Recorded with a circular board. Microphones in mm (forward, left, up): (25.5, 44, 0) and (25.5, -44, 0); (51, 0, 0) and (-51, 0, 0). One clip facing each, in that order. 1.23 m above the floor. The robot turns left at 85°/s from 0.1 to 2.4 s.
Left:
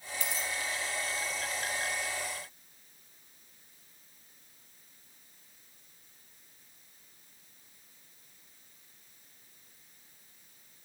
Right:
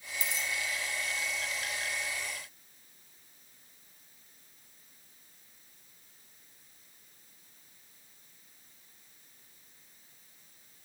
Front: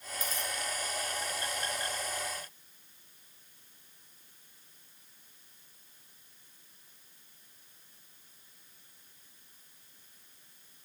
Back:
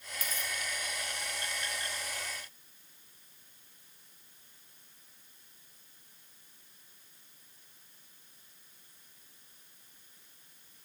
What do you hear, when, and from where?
0.2 s a dropped coin: 65° left, 2.0 m; by 0.5 s 40° left, 2.0 m